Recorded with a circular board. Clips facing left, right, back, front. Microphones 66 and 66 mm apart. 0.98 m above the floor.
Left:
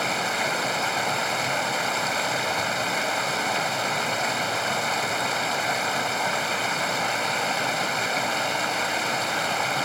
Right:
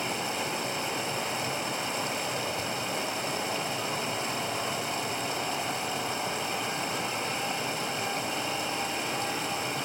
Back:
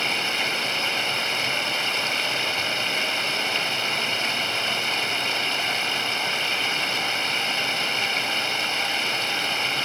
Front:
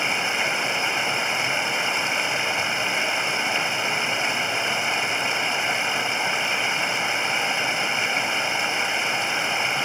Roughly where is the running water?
Left.